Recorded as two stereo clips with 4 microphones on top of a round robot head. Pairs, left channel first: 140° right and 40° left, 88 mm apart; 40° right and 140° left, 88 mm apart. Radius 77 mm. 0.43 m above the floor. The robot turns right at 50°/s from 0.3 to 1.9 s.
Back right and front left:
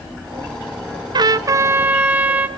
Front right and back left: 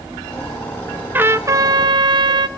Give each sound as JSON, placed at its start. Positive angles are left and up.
{"t": 1.1, "sound": "a trumpet", "azimuth_deg": 70, "distance_m": 0.5}